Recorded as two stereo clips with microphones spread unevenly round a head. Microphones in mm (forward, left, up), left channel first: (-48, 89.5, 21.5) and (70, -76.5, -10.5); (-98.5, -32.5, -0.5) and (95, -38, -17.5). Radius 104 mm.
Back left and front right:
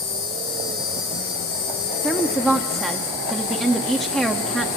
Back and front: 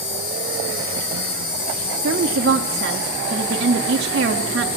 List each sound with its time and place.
0.0 s an insect: 155° left, 8.5 m
2.0 s a woman speaking: 35° left, 0.9 m